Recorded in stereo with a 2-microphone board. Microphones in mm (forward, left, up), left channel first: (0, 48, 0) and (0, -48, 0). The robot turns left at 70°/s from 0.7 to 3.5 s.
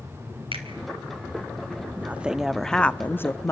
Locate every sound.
0.5 s a finger snap: 70° right (ahead or behind), 3.5 m
2.0 s a woman speaking: 140° right, 0.6 m; by 3.5 s 110° left, 0.6 m